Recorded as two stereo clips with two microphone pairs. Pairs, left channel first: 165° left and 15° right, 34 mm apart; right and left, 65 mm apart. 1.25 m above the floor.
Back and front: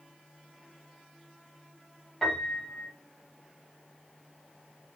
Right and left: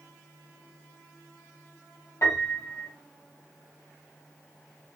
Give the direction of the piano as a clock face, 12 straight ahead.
4 o'clock.